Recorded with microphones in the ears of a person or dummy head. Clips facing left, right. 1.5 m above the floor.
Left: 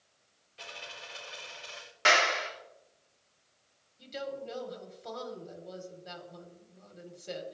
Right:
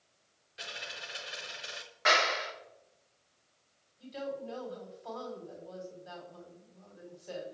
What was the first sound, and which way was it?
A dropped coin, 10° right (ahead or behind).